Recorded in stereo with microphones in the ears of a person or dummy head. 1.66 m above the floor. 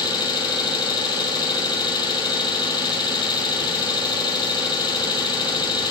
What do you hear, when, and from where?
0.0 s an engine running: 20° left (ahead or behind), 2 m